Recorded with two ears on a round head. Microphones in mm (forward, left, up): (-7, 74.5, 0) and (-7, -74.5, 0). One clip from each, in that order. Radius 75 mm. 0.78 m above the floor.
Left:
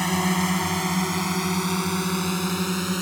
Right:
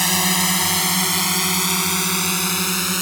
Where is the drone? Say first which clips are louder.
Right 5 dB; 80° right; by 3.0 s 60° right (ahead or behind).